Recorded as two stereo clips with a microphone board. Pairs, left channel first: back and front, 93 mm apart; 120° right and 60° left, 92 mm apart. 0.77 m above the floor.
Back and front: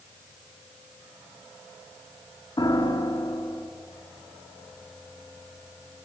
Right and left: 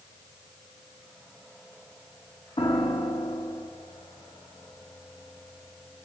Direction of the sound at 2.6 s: 140° right.